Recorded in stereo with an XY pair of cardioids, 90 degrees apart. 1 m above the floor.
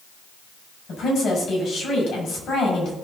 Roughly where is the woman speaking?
Left.